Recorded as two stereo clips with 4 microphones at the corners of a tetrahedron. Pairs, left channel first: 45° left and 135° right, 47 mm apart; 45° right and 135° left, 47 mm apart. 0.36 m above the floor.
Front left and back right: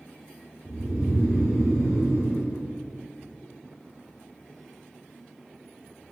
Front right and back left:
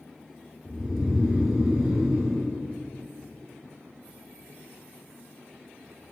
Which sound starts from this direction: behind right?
Snoring, at 0.7 s.